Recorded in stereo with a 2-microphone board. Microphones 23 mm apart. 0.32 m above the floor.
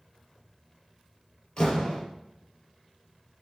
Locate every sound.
1.6 s a door slam: 35° left (ahead or behind), 4.5 m